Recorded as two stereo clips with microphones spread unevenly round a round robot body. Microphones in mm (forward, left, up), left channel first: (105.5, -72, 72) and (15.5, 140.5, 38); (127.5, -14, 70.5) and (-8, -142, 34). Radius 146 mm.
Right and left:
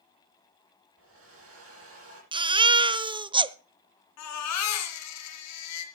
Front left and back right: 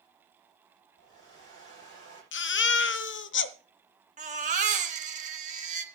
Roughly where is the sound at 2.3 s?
Ahead left.